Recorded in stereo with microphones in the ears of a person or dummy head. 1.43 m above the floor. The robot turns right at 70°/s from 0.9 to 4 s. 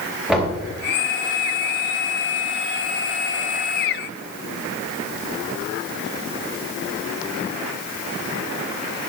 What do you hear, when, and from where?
0.3 s knocking: 5° right (ahead or behind), 4.5 m